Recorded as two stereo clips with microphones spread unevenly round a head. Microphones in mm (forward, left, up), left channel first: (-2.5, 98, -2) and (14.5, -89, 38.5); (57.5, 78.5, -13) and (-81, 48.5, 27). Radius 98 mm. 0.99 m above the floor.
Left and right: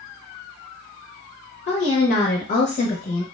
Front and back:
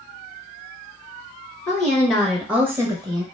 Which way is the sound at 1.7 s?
60° left.